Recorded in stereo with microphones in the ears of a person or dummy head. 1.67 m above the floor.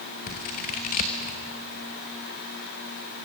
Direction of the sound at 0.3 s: 35° left (ahead or behind).